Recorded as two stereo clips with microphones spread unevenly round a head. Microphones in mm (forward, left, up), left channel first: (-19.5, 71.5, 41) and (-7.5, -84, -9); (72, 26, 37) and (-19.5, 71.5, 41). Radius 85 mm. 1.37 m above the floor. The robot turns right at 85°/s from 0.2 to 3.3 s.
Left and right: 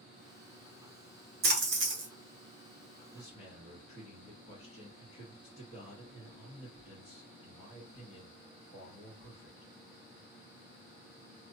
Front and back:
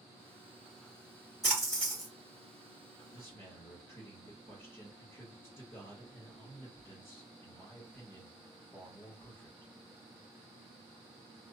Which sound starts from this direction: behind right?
A splash, at 1.4 s.